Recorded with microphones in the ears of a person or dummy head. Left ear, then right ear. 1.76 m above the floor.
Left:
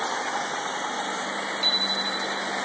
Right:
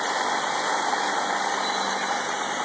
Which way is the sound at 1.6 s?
65° left (ahead or behind).